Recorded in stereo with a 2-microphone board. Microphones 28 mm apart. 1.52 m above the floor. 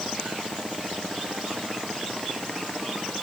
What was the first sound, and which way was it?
Only background noise.